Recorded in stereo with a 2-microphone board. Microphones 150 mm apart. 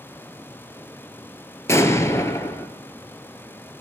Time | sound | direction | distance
1.7 | an explosion | 20° left (ahead or behind) | 0.8 m